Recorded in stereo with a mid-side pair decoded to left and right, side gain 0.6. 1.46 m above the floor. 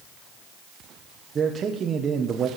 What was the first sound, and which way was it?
A man speaking, 35° right.